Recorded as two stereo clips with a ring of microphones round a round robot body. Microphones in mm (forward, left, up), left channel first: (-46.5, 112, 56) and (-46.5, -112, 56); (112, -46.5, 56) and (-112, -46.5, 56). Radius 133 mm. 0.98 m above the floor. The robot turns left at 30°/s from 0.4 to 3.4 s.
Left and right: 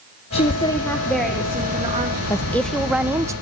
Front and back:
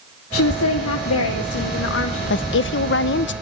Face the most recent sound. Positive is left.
turn(degrees=-20)